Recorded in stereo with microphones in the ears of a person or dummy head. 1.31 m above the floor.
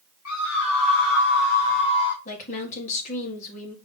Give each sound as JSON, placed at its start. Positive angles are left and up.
{"t": 0.2, "sound": "a scream", "side_deg": 80, "distance_m": 2.5}
{"t": 2.2, "sound": "a woman speaking", "side_deg": 40, "distance_m": 1.9}